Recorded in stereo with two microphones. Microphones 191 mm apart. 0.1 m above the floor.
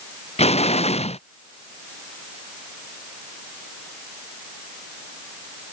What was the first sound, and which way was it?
An explosion, 35° left (ahead or behind).